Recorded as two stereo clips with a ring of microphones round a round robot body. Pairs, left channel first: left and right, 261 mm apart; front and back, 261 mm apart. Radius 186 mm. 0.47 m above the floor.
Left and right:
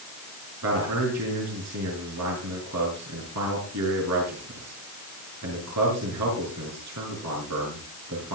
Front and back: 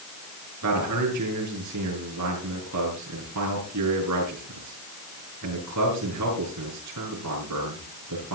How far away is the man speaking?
About 6.5 m.